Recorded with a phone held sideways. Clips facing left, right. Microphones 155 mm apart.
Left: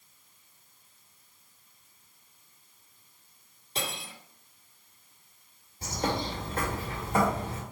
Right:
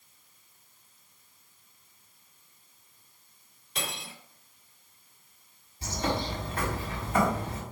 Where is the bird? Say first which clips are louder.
Even; 45° left (ahead or behind), 2.5 m.